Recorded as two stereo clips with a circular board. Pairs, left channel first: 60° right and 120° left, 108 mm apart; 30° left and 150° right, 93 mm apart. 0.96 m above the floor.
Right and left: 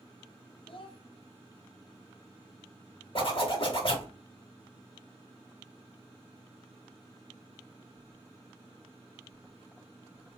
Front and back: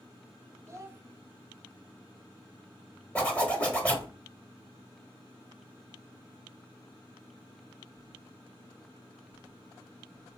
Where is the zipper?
45° right, 1.1 m.